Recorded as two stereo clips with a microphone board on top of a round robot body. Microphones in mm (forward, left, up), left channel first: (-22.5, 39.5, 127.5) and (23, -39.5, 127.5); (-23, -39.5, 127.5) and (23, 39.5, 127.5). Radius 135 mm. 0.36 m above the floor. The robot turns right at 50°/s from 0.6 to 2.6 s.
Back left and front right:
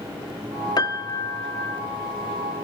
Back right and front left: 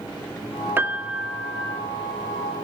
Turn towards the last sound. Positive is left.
turn(degrees=-150)